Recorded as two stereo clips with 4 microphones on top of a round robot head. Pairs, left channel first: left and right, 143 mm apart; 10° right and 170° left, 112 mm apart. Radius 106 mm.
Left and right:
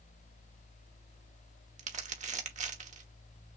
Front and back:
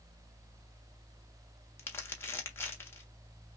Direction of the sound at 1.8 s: 75° right.